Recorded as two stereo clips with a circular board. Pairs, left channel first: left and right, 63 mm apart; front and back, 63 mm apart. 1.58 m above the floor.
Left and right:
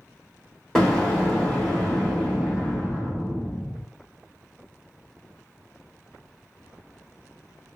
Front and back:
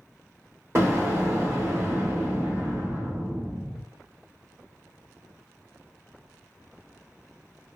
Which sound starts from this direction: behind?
An explosion, at 0.8 s.